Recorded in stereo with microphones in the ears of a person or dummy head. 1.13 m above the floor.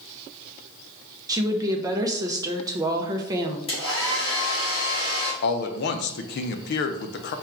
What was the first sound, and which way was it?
A woman speaking, 25° right (ahead or behind).